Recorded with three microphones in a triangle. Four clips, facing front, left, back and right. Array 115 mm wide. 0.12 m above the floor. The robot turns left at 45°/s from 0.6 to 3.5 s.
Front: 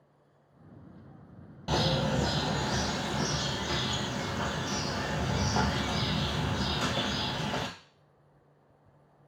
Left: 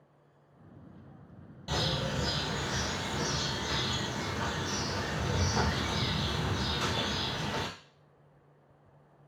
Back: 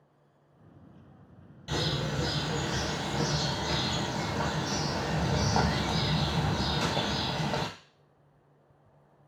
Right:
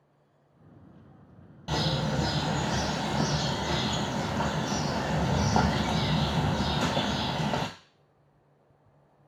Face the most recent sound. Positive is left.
turn(degrees=-105)